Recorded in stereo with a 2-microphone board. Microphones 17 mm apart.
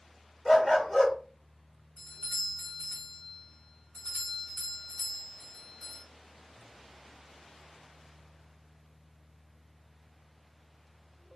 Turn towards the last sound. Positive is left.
turn(degrees=65)  # may be behind; listen again after turning